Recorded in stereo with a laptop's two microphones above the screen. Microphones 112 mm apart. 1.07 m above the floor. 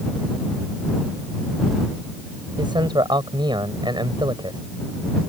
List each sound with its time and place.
2.6 s a man speaking: 40° right (ahead or behind)